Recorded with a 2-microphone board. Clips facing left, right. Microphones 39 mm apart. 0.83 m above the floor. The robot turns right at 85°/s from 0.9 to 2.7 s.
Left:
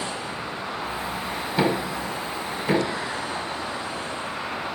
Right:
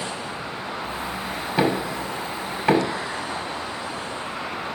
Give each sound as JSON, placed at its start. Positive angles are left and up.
{"t": 1.6, "sound": "knocking", "side_deg": -20, "distance_m": 1.9}